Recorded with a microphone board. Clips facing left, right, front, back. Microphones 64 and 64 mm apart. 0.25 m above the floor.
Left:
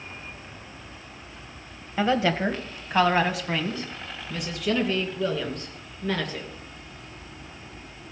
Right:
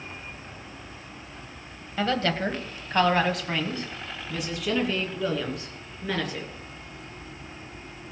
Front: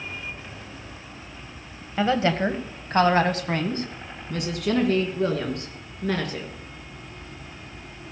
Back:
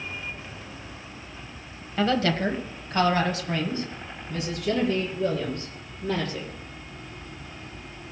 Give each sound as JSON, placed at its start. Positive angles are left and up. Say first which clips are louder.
{"t": 2.0, "sound": "a woman speaking", "louder": "left 3 dB, front 2 dB", "azimuth_deg": 45, "distance_m": 1.0}